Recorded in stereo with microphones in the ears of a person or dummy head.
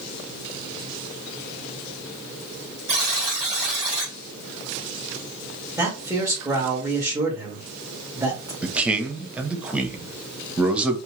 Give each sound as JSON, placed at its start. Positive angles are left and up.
{"t": 2.9, "sound": "a buzzer", "side_deg": -20, "distance_m": 1.7}
{"t": 5.8, "sound": "a man speaking", "side_deg": -10, "distance_m": 1.2}
{"t": 8.6, "sound": "a man speaking", "side_deg": -10, "distance_m": 0.6}